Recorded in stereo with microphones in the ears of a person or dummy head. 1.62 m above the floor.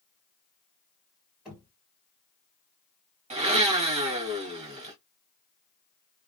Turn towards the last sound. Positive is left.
turn(degrees=-30)  # may be behind; listen again after turning